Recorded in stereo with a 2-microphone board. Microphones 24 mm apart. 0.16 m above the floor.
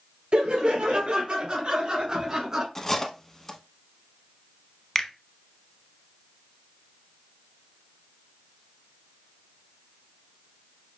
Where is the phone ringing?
No phone ringing in this recording.